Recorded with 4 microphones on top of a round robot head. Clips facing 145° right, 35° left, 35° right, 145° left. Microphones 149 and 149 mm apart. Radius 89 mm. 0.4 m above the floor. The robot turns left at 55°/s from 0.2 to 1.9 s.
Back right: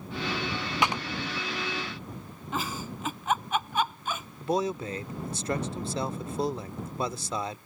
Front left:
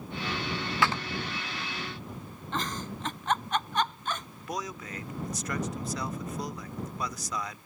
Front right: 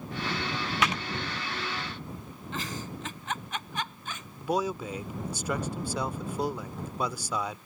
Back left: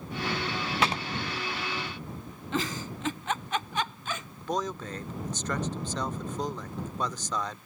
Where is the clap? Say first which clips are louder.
Even, back left 1 dB; 160° left; by 1.0 s 150° left.